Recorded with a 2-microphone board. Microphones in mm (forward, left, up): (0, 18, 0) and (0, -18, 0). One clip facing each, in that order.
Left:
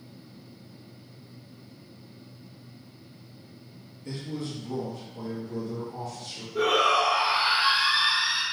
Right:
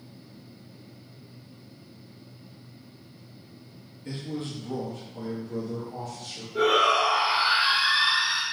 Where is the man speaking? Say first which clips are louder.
Right 1 dB; 35° right (ahead or behind), 0.9 m; by 6.5 s 45° right (ahead or behind), 1.3 m.